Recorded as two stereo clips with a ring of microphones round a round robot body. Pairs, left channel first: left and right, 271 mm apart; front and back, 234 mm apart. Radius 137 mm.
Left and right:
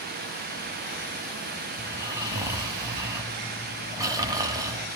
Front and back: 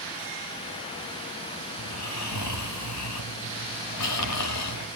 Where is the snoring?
10° right, 1.5 m.